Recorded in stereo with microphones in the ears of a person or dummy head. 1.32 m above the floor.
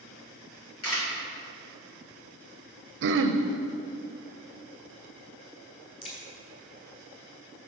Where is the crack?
25° left (ahead or behind), 3 m.